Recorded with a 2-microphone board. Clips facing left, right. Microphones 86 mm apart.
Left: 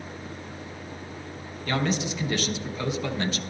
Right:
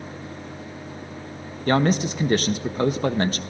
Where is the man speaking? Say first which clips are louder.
Right 7 dB; 45° right (ahead or behind), 0.9 m.